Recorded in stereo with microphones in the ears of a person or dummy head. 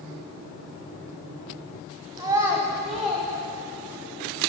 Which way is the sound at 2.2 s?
15° right (ahead or behind).